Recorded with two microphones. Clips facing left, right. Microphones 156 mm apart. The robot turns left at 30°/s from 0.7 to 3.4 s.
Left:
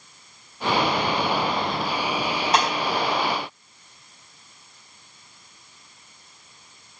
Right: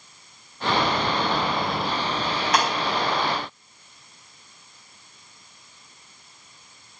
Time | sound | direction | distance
2.5 | breaking glass | 30° left (ahead or behind) | 4 m